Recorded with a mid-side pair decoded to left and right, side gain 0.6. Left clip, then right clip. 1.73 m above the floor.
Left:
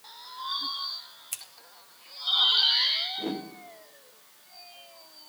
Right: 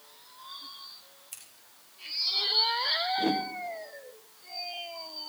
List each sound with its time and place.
1.3 s scissors: 40° left, 2 m
3.2 s a whoosh: 25° right, 1.6 m